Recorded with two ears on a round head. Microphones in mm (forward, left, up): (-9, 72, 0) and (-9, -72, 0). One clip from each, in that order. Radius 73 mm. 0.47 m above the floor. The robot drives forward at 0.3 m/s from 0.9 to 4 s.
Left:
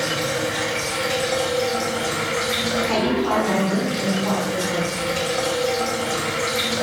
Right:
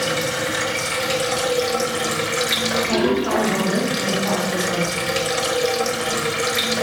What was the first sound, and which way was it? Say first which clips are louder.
Running water: right 1 dB; 40° right (ahead or behind).